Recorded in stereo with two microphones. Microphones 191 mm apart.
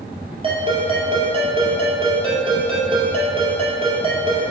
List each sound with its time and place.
0.4 s a ringtone: 30° right (ahead or behind), 2 m